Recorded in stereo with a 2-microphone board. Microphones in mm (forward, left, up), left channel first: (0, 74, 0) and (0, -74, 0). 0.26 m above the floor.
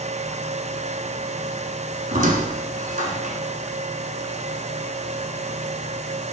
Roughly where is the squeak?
Right.